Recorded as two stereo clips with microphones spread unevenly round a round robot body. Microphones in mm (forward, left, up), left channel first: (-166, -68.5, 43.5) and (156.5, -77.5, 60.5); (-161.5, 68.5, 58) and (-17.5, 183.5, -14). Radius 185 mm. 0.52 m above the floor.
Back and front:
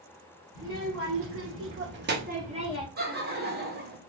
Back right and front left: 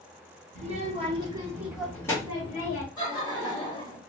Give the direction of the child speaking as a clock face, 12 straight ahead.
10 o'clock.